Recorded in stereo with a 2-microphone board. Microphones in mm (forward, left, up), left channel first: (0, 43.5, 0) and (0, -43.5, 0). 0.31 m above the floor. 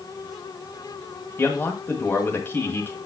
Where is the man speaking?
25° left (ahead or behind), 1.7 m.